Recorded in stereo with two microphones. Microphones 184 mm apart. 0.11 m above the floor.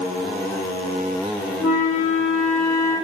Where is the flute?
20° right (ahead or behind), 3 m.